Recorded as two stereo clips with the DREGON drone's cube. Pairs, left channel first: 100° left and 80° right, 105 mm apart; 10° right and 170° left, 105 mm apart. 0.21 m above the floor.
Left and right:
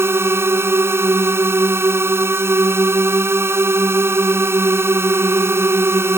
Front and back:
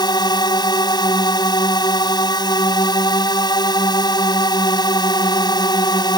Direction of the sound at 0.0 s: 25° right.